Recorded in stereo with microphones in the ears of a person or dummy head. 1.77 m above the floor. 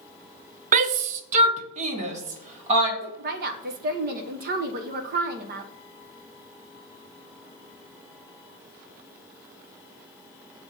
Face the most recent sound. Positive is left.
turn(degrees=-55)  # may be behind; listen again after turning